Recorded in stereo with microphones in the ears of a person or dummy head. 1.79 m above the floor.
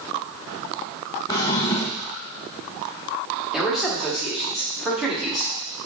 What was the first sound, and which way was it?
A drawer, 25° left (ahead or behind).